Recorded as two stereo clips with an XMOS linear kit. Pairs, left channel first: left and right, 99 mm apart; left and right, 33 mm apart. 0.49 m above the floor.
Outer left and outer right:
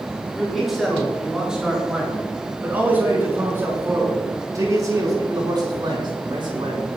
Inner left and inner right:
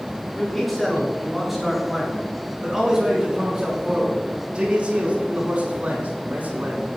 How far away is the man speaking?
About 7 m.